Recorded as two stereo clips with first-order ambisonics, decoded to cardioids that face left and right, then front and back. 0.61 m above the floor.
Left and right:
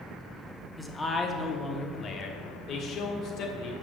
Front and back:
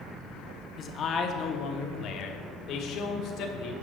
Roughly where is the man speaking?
Ahead.